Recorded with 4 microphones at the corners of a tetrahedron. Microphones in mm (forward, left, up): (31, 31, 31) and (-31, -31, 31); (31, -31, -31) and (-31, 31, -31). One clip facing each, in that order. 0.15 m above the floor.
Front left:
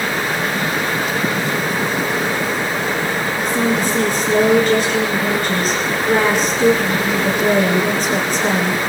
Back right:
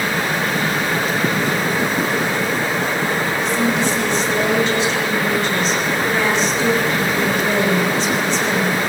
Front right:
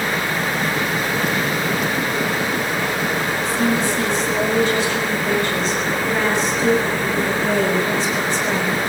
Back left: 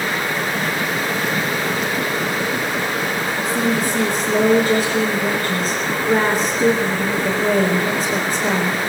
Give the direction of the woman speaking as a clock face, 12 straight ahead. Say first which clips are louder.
Front left 2 dB, back left 1 dB; 9 o'clock.